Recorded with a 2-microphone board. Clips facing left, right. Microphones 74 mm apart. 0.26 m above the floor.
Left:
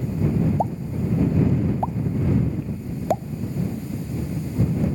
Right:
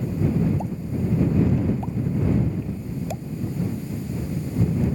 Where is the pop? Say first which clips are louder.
Left 2 dB; 55° left (ahead or behind).